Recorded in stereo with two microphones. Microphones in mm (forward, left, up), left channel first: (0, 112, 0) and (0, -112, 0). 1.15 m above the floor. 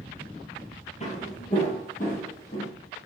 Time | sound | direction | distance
1.0 | footsteps | 30° left (ahead or behind) | 1.6 m